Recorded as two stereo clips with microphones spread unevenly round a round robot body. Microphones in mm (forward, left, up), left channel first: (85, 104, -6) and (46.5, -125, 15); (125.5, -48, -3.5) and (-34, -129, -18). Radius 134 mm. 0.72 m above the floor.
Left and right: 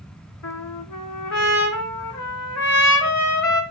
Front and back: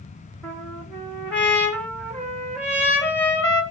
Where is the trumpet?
120° left, 2.0 m.